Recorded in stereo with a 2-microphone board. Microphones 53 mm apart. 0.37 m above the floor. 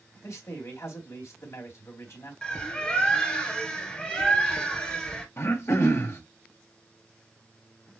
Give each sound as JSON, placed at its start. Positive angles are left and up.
{"t": 0.2, "sound": "a man speaking", "side_deg": 60, "distance_m": 3.0}
{"t": 2.4, "sound": "a bird", "side_deg": 15, "distance_m": 1.8}
{"t": 5.4, "sound": "throat clearing", "side_deg": 55, "distance_m": 1.7}